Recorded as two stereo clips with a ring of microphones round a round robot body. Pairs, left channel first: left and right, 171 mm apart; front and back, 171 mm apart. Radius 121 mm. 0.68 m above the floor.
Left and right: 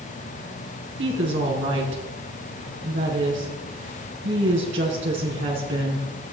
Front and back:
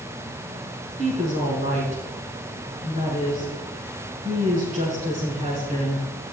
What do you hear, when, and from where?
1.0 s a woman speaking: 115° right, 6.5 m